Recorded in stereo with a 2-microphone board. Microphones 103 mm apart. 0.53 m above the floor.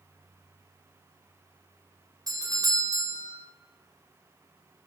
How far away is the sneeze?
No sneeze in this recording.